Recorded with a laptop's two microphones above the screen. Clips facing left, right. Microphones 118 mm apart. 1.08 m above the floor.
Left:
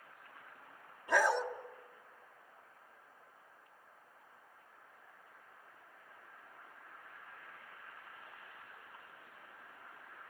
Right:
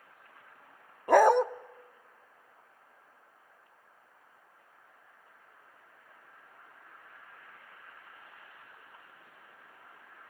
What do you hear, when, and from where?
1.1 s a dog barking: 55° right (ahead or behind), 0.7 m